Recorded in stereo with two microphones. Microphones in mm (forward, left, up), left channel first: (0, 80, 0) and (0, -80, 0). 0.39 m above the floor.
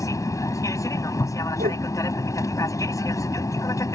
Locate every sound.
0.0 s an aircraft: 20° left (ahead or behind)
1.6 s a whoosh: 70° right (ahead or behind)